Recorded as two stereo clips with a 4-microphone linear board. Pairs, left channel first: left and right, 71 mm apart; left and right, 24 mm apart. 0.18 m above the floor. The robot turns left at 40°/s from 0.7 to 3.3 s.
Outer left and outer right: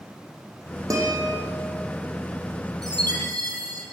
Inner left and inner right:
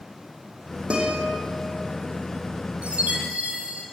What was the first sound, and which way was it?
A guitar, 50° right (ahead or behind).